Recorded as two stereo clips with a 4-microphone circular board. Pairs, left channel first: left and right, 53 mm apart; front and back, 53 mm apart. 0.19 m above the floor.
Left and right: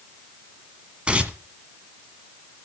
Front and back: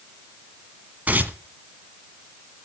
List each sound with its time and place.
1.1 s tearing paper: 145° right, 1.6 m